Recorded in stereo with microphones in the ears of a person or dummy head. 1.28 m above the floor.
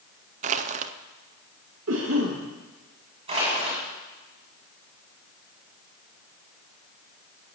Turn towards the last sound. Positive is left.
turn(degrees=-30)  # may be behind; listen again after turning